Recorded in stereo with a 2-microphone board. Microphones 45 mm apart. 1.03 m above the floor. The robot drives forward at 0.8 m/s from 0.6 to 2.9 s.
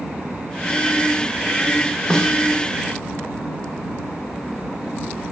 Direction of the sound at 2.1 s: 15° left (ahead or behind).